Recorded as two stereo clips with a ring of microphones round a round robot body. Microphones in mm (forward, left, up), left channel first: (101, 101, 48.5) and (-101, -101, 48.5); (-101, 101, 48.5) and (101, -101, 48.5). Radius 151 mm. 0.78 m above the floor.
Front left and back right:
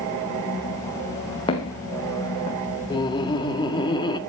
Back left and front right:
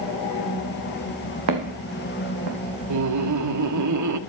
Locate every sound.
1.5 s footsteps: 30° right, 3 m
2.9 s laughter: 30° right, 1.8 m